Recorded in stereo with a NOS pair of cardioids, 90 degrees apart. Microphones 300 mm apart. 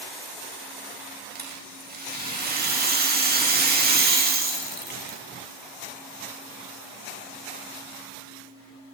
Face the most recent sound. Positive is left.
turn(degrees=-30)